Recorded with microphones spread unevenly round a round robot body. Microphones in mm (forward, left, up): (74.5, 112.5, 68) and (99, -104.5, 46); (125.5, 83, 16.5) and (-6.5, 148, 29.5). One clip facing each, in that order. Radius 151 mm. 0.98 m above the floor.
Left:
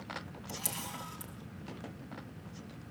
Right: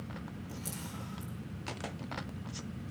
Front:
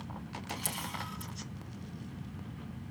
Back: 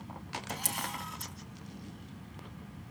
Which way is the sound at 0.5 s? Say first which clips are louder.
Right 1 dB, back 2 dB; 115° left.